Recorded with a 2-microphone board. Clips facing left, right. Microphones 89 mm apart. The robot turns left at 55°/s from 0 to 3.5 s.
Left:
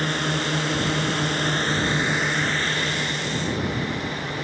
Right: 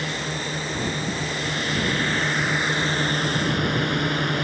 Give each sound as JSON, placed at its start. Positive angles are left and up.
{"t": 0.0, "sound": "a drone", "side_deg": 45}